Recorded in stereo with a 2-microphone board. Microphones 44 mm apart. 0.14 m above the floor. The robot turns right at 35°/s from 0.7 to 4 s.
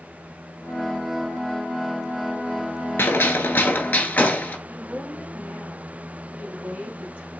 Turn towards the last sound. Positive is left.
turn(degrees=-35)  # may be behind; listen again after turning